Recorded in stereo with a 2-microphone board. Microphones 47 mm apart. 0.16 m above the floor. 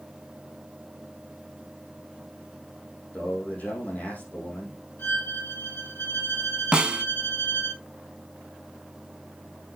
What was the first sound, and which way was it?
A man speaking, 35° left (ahead or behind).